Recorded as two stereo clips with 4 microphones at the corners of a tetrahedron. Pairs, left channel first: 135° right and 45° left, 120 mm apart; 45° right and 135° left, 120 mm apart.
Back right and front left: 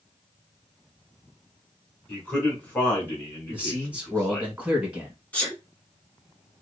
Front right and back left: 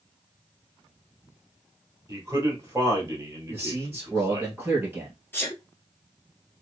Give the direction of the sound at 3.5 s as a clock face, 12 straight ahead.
9 o'clock.